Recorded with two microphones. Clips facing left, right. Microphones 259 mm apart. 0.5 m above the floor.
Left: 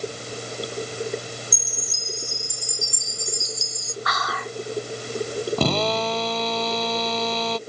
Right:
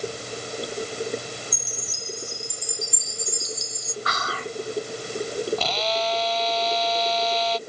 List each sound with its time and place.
1.5 s a chime: 50° left (ahead or behind)
4.0 s whispering: 30° right (ahead or behind)
5.6 s a drill: 55° left (ahead or behind)